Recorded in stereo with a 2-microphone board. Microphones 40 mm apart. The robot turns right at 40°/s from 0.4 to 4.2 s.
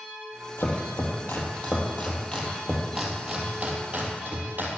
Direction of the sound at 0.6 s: 85° left.